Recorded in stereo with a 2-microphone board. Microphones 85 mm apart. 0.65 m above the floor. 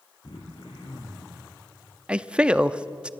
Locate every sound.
0.2 s throat clearing: 70° left (ahead or behind), 4.5 m
2.1 s a man speaking: 15° right (ahead or behind), 0.7 m